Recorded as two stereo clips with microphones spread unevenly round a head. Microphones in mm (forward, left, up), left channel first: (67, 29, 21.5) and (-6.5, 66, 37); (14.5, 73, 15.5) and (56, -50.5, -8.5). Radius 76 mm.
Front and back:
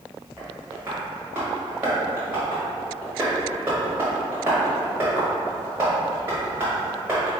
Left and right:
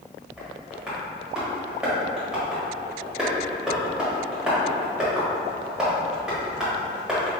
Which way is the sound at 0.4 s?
170° right.